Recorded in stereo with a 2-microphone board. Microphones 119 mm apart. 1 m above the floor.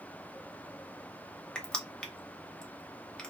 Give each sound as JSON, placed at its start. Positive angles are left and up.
{"t": 1.6, "sound": "crushing", "side_deg": 10, "distance_m": 0.6}